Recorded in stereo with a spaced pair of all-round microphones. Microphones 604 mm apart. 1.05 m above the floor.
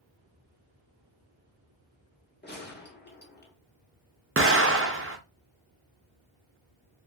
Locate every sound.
2.4 s a gunshot: 20° left (ahead or behind), 0.6 m
4.4 s an explosion: 25° right (ahead or behind), 0.5 m